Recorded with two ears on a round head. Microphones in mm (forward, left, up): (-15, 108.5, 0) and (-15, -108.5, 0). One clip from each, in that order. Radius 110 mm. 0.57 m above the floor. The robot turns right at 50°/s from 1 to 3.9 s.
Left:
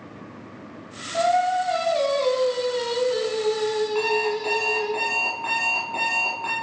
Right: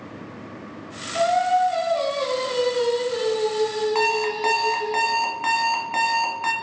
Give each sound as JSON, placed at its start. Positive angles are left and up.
{"t": 1.1, "sound": "singing", "azimuth_deg": 20, "distance_m": 4.0}
{"t": 4.0, "sound": "an alarm clock", "side_deg": -65, "distance_m": 1.9}